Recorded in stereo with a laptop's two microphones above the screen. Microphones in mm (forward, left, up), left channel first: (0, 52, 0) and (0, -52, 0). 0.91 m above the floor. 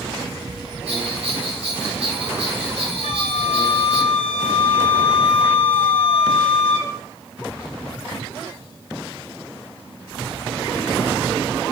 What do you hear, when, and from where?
0.9 s a bell: 80° right, 4.5 m
3.0 s a flute: 75° left (ahead or behind), 3 m